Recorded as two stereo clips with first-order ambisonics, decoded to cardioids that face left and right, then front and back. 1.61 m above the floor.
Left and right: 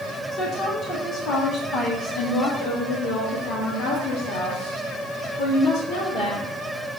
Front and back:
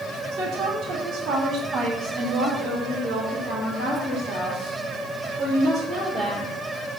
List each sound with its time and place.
0.3 s a woman speaking: 140° left, 2 m; by 6.4 s 75° left, 3.5 m